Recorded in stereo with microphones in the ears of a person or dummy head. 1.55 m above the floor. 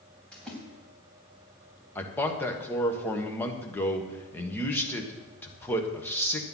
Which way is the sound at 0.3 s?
5° left (ahead or behind).